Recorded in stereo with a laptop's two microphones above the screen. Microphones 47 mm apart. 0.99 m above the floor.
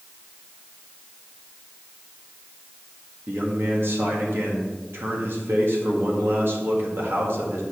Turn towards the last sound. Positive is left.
turn(degrees=-65)  # may be behind; listen again after turning